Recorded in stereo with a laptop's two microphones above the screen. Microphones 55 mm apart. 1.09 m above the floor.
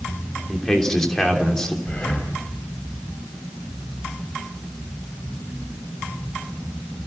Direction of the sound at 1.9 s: 25° left (ahead or behind).